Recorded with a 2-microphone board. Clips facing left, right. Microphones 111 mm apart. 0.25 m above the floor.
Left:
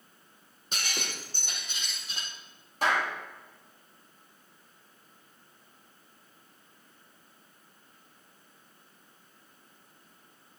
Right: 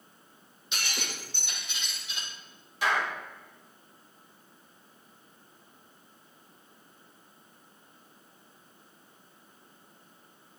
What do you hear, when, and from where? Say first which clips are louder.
0.7 s breaking glass: even; 45° left (ahead or behind), 6.5 m
2.8 s a clap: left 1 dB; 45° left (ahead or behind), 7 m